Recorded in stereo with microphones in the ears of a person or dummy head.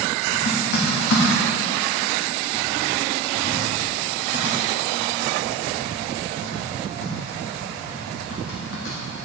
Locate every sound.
0.3 s typing on a keyboard: 65° left (ahead or behind), 1.6 m